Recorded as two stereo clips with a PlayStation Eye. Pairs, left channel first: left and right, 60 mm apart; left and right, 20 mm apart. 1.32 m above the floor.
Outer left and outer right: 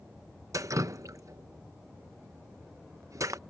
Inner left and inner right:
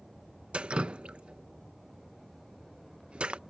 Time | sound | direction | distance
0.5 | dripping | 60° right (ahead or behind) | ?